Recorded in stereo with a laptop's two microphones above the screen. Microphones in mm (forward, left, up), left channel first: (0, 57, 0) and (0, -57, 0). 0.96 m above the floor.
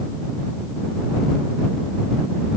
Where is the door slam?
I don't hear a door slam.